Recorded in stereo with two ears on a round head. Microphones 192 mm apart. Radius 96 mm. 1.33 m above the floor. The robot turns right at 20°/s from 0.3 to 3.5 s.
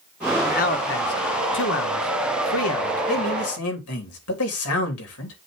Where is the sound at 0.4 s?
40° left (ahead or behind), 1.5 m; by 3.0 s 80° left, 1.5 m.